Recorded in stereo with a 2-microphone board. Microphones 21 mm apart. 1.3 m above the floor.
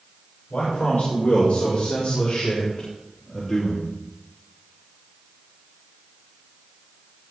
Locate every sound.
0.5 s a man speaking: 65° left (ahead or behind), 6 m; by 3.9 s 10° left (ahead or behind), 3 m